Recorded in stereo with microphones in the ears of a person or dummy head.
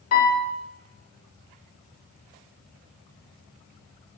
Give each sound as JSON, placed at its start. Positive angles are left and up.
{"t": 0.1, "sound": "a piano", "side_deg": 50, "distance_m": 1.9}